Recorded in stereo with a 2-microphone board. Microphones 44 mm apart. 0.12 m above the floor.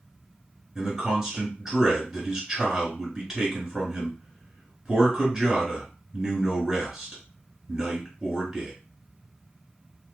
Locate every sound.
0.8 s a man speaking: 10° right (ahead or behind), 1.2 m